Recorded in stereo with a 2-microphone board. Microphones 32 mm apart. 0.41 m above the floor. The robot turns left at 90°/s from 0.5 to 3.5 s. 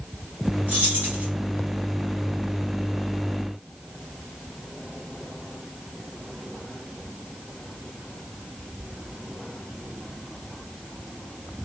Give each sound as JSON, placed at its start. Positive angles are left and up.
{"t": 0.7, "sound": "keys jangling", "azimuth_deg": -70, "distance_m": 2.0}